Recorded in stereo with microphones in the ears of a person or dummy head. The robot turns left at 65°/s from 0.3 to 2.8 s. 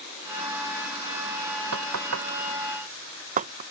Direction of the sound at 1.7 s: 75° right (ahead or behind).